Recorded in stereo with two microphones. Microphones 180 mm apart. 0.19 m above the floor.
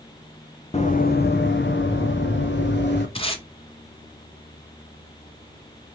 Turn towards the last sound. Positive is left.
turn(degrees=30)  # may be behind; listen again after turning